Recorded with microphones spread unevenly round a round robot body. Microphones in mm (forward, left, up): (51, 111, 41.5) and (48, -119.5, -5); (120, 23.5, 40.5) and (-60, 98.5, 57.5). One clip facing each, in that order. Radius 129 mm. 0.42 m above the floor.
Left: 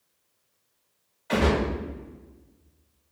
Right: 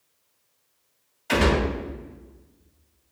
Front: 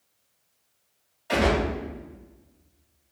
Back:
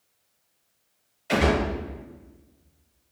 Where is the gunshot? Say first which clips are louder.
Right 1 dB, back 1 dB; 130° right, 2.5 m.